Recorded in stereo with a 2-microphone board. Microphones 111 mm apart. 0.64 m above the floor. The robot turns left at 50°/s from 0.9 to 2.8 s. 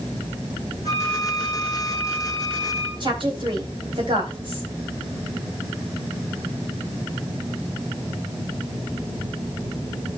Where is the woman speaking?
50° right (ahead or behind), 3.5 m.